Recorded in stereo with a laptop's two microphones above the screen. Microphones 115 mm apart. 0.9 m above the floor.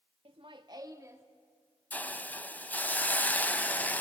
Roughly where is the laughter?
Right.